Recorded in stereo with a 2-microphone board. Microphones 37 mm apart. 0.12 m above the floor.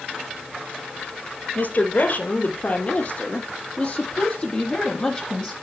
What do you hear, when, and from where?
1.6 s a woman speaking: 50° left (ahead or behind), 2.5 m; by 5.5 s 15° left (ahead or behind), 3.5 m